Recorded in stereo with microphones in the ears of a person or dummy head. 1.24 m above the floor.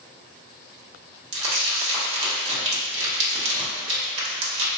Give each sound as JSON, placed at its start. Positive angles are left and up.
{"t": 1.3, "sound": "crumpling", "side_deg": -35, "distance_m": 1.1}